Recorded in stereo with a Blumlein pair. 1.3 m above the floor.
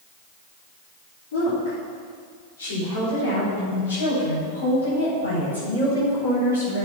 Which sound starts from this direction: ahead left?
A woman speaking, at 1.3 s.